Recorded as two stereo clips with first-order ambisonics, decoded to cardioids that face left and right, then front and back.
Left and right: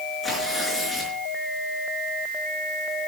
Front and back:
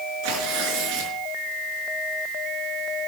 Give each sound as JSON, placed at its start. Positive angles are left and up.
{"t": 0.2, "sound": "tearing paper", "azimuth_deg": 175, "distance_m": 5.0}